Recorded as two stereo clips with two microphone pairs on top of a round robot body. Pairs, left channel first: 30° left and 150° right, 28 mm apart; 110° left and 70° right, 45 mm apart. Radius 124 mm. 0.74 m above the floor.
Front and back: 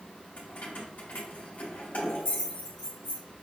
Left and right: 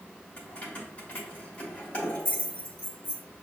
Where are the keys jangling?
50° left, 1.3 m.